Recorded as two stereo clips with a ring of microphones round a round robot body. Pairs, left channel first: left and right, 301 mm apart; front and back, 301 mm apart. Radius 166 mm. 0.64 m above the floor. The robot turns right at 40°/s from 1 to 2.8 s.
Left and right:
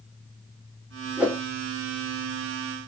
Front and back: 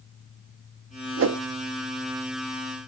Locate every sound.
1.2 s a whoosh: 175° right, 0.7 m; by 1.4 s 165° right, 0.7 m